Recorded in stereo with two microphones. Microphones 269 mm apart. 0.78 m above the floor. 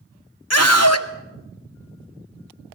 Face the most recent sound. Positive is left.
turn(degrees=65)  # may be behind; listen again after turning